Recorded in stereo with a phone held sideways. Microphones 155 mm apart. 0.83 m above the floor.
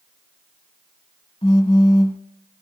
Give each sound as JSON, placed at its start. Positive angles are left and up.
{"t": 1.4, "sound": "a phone buzzing", "side_deg": 40, "distance_m": 0.9}